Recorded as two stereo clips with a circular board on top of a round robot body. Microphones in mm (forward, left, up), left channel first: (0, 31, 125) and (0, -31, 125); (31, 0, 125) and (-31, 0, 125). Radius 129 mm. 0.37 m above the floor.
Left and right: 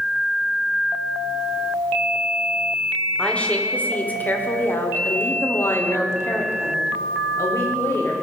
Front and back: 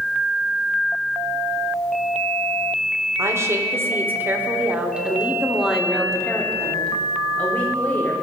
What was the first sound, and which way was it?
A woman speaking, 160° left.